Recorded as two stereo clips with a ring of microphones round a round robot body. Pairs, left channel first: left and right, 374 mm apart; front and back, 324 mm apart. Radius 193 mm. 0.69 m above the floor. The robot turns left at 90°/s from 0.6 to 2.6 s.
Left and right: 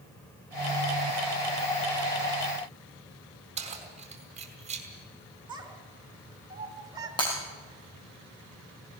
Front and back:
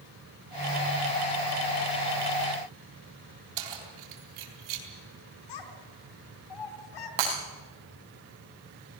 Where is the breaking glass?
170° left, 6.5 m.